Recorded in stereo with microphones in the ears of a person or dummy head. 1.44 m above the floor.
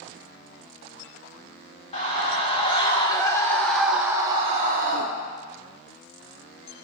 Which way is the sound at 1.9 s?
35° left (ahead or behind).